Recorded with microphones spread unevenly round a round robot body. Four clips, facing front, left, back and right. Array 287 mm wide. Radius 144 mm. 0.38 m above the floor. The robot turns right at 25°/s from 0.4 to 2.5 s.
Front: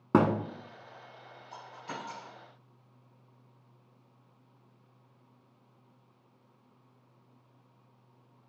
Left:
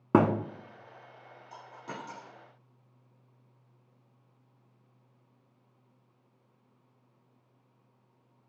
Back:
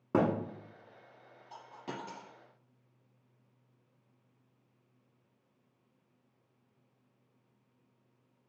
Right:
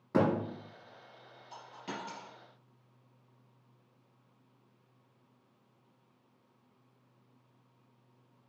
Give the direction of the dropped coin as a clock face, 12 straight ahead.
6 o'clock.